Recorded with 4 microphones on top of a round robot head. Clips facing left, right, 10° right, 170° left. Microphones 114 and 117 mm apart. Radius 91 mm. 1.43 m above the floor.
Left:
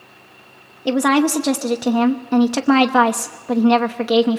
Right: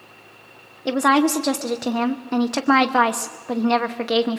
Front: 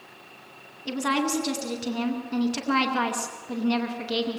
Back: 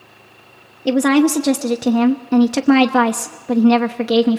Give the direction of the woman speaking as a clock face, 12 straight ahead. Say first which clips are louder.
Left 2 dB, back 13 dB; 6 o'clock.